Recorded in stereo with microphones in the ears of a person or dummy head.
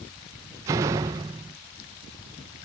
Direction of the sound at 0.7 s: 10° right (ahead or behind).